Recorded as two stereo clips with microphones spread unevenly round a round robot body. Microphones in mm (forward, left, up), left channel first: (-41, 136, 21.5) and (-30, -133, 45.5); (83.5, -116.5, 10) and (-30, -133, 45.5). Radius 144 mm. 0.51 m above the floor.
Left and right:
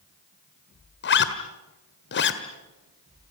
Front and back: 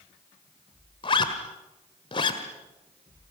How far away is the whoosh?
No whoosh in this recording.